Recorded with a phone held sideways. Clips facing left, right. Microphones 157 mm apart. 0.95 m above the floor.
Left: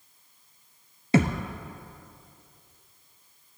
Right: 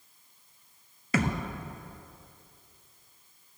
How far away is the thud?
About 1.0 m.